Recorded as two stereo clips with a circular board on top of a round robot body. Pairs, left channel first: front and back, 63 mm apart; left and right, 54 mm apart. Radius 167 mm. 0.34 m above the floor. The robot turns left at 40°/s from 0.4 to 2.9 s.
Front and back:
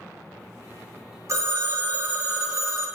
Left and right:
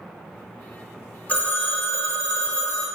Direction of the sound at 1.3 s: 150° left.